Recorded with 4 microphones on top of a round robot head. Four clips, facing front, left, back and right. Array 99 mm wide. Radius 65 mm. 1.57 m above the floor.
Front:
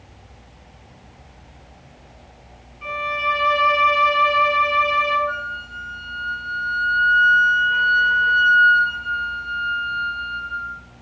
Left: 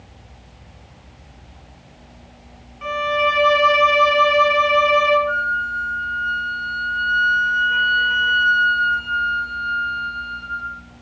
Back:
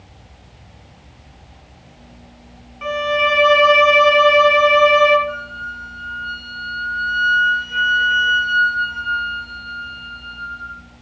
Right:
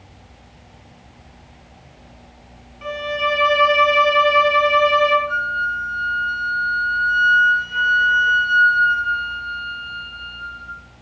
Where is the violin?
175° left, 0.9 m.